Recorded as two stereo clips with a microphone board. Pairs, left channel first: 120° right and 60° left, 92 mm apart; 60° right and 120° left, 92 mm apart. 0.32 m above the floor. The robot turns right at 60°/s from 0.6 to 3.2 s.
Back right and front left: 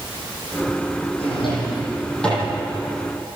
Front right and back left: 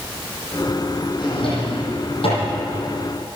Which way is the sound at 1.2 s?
100° right.